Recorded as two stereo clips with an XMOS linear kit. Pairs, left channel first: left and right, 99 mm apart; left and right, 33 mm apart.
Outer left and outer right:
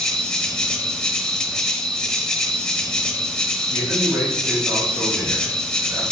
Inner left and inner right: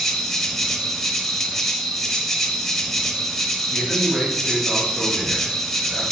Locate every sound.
0.0 s an insect: 5° left (ahead or behind), 0.7 m
3.7 s a man speaking: 25° right (ahead or behind), 3.5 m